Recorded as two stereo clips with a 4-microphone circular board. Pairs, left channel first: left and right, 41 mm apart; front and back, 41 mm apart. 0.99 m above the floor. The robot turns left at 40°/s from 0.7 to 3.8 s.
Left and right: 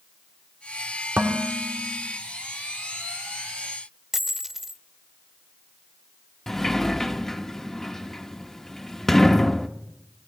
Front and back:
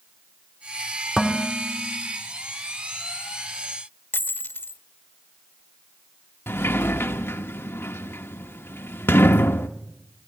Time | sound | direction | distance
1.2 | dishes clattering | 90° right | 2.0 m
4.1 | a dropped coin | 10° right | 1.1 m
6.5 | a sliding door | 10° left | 1.1 m